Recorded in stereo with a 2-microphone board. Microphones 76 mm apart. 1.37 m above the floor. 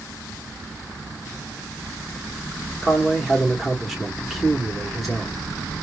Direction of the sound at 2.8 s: Centre (ahead or behind).